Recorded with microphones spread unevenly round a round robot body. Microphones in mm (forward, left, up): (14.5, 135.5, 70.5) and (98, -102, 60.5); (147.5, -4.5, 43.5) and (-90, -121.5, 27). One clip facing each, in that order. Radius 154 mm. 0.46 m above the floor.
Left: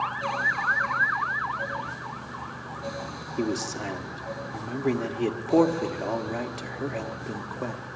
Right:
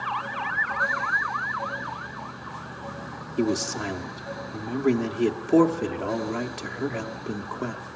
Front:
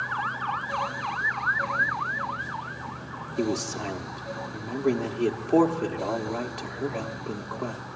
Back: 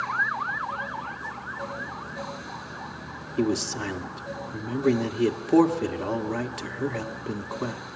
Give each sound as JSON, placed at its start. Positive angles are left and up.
{"t": 3.4, "sound": "a man speaking", "azimuth_deg": -125, "distance_m": 1.1}